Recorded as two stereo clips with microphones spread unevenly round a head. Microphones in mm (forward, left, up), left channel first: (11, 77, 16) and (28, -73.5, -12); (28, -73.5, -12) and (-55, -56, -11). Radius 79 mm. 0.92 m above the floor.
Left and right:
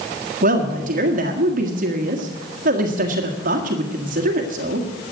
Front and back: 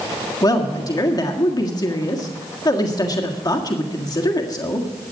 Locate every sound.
0.4 s a woman speaking: 55° right, 1.7 m